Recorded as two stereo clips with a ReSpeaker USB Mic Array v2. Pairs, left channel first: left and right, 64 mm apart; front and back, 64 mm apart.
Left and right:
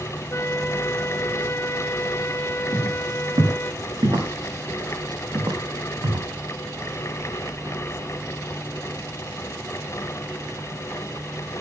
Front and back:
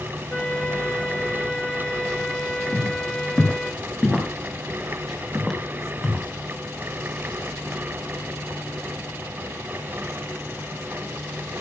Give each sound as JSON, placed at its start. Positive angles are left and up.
{"t": 0.3, "sound": "a flute", "azimuth_deg": 70, "distance_m": 1.3}
{"t": 2.7, "sound": "footsteps", "azimuth_deg": -85, "distance_m": 7.0}